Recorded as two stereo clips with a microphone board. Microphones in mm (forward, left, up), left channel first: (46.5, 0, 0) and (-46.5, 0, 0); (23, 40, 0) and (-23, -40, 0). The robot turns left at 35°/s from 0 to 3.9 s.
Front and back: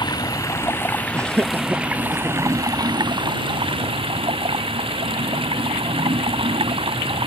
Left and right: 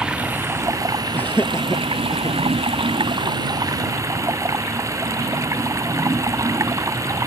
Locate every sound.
0.0 s running water: 40° right; by 7.3 s 175° right
1.1 s laughter: 130° left; by 2.4 s 85° left